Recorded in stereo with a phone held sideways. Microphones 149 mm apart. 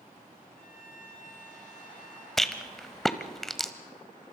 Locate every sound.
0.6 s a violin: 80° left, 6.5 m
2.4 s a rattle: centre (ahead or behind), 1.1 m